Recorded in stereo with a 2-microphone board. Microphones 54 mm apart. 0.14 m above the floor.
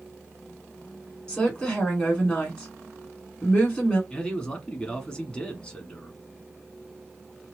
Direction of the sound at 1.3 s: 15° left (ahead or behind).